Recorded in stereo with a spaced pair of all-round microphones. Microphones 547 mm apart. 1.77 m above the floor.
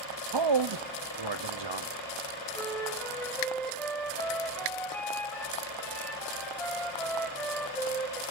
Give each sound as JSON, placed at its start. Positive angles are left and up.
{"t": 0.3, "sound": "a man speaking", "side_deg": -55, "distance_m": 0.8}
{"t": 2.5, "sound": "a flute", "side_deg": 5, "distance_m": 2.0}